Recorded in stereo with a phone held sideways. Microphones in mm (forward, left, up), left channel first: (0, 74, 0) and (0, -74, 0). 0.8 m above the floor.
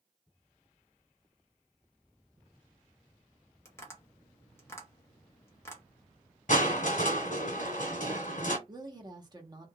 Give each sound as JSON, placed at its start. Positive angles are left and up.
{"t": 3.6, "sound": "tapping", "side_deg": 15, "distance_m": 0.8}
{"t": 6.5, "sound": "crushing", "side_deg": 60, "distance_m": 1.3}
{"t": 8.7, "sound": "a woman speaking", "side_deg": -30, "distance_m": 1.0}